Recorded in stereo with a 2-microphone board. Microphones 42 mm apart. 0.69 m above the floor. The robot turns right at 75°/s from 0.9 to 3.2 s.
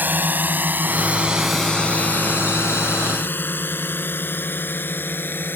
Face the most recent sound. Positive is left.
turn(degrees=55)  # may be behind; listen again after turning